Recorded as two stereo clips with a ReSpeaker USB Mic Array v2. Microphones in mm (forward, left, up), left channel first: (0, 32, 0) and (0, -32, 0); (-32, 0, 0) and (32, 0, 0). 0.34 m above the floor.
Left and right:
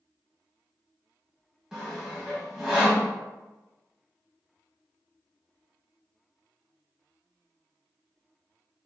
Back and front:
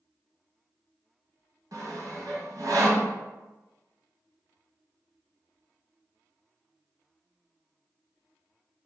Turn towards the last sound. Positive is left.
turn(degrees=-10)